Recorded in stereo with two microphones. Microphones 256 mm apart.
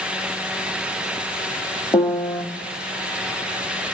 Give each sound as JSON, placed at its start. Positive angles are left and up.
{"t": 1.9, "sound": "a piano", "side_deg": 10, "distance_m": 1.2}